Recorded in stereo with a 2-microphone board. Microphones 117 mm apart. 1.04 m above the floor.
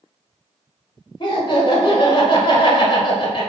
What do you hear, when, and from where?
1.2 s laughter: 40° left (ahead or behind), 1.1 m